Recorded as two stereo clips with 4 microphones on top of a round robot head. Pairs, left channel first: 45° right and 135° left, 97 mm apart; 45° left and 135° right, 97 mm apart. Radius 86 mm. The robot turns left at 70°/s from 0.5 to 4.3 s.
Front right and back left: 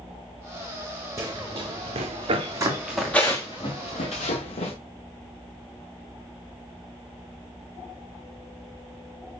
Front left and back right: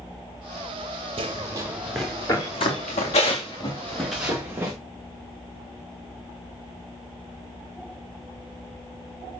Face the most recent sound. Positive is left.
turn(degrees=-65)